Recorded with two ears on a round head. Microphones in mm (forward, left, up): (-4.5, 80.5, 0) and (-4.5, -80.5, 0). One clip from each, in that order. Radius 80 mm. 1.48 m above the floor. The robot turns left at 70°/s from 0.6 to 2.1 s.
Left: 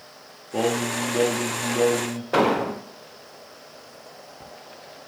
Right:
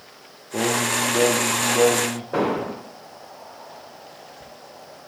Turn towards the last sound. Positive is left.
turn(degrees=70)  # may be behind; listen again after turning